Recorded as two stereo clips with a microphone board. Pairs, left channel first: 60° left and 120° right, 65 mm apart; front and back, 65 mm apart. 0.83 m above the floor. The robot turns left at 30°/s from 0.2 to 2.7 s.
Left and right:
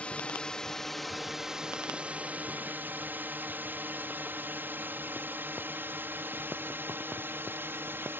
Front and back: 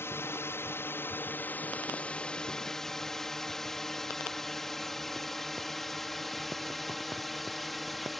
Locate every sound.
0.0 s a drone: straight ahead; by 8.2 s 90° right